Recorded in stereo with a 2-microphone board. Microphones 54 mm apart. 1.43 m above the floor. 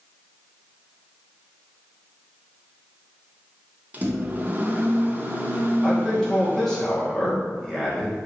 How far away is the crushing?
I don't hear crushing.